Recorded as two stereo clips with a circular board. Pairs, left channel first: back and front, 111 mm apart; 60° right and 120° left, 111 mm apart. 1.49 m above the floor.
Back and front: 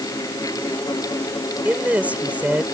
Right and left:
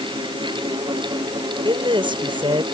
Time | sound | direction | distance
1.6 | a woman speaking | 75° left | ?